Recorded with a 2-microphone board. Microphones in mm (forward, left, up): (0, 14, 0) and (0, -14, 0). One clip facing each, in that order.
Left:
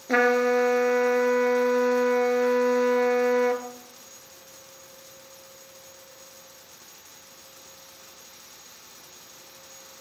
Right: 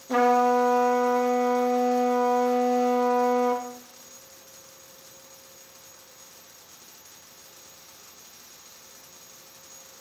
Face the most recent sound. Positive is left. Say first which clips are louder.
# even
turn(degrees=45)  # may be behind; listen again after turning